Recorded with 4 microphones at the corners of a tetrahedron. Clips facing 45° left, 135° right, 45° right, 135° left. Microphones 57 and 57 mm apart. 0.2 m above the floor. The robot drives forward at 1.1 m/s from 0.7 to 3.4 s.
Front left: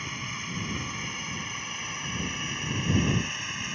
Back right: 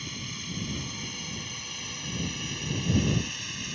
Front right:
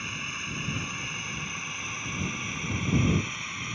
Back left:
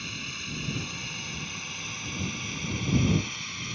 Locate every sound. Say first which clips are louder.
0.0 s a drone: front left 4 dB, front right 3 dB; 10° left; by 3.8 s 15° left